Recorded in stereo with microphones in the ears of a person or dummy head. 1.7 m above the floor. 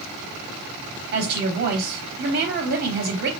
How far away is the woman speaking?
About 1.1 m.